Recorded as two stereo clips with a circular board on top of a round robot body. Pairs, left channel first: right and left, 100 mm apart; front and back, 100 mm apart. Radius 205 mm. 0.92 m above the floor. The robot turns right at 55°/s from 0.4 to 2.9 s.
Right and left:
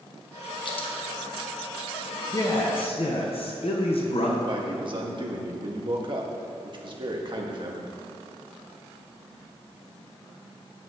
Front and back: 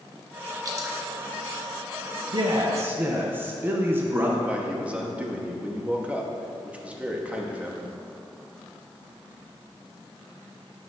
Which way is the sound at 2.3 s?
145° right.